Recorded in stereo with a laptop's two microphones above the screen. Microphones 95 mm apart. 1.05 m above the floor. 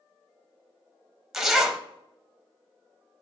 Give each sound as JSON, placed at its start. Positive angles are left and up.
{"t": 1.3, "sound": "a zipper", "side_deg": 0, "distance_m": 0.6}